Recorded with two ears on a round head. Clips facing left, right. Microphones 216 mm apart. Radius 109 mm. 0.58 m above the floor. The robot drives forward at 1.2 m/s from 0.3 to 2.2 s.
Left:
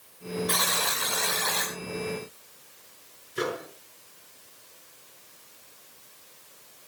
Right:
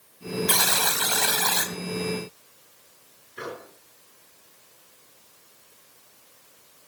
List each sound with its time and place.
0.5 s a buzzer: 75° right (ahead or behind), 3 m; by 1.7 s 70° right (ahead or behind), 3 m
3.4 s a microwave: 60° left (ahead or behind), 6 m